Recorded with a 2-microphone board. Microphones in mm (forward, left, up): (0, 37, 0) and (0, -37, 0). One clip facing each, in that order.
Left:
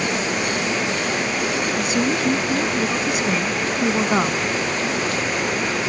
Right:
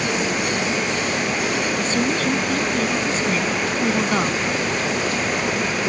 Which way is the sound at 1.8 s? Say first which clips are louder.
Left 1 dB; 15° left (ahead or behind).